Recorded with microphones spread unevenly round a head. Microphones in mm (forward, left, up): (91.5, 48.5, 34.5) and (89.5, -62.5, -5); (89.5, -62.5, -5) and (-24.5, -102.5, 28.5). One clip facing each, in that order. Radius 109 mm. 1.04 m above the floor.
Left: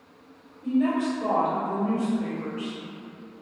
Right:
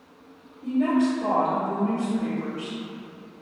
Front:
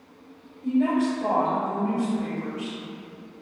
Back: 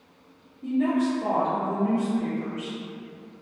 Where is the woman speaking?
155° right, 1.9 m.